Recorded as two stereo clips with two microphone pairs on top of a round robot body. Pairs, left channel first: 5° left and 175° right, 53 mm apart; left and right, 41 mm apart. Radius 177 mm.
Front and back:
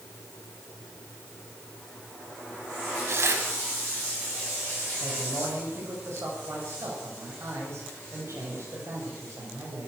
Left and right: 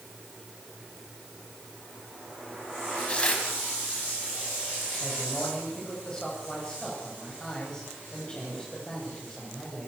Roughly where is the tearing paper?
Behind left.